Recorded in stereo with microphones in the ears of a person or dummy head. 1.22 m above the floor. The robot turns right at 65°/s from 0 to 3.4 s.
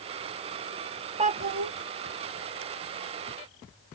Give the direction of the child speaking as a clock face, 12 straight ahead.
5 o'clock.